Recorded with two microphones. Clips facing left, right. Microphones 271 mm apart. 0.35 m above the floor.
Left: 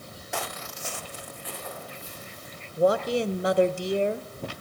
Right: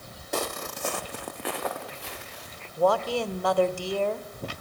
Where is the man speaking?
20° left (ahead or behind), 1.1 m.